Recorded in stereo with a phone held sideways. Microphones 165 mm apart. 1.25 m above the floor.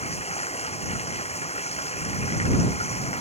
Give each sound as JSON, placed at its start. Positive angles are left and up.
{"t": 0.0, "sound": "running water", "side_deg": 40}